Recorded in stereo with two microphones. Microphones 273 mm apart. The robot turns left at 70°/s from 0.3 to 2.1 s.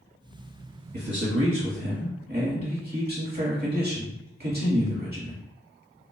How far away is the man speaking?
About 1.4 m.